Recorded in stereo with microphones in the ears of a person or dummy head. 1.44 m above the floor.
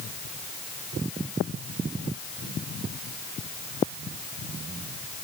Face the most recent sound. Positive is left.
No sound to turn to.